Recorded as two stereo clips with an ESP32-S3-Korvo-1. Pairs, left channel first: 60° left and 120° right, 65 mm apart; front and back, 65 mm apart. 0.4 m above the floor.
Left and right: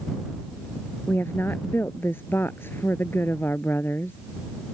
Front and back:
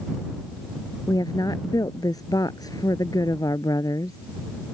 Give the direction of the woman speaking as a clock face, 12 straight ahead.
12 o'clock.